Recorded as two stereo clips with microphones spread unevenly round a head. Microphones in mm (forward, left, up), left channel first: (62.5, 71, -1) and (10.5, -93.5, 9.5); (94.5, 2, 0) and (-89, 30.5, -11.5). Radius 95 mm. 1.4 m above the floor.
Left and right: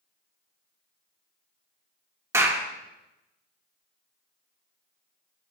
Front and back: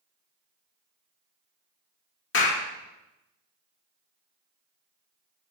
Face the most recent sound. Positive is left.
turn(degrees=-35)